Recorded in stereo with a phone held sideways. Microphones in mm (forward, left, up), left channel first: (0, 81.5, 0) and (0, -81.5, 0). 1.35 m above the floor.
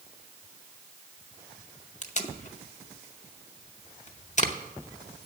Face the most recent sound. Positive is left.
turn(degrees=50)  # may be behind; listen again after turning